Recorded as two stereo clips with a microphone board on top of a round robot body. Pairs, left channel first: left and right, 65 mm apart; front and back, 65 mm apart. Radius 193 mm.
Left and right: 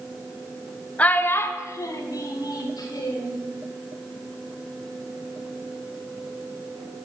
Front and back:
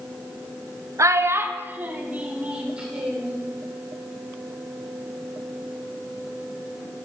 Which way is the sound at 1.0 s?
155° left.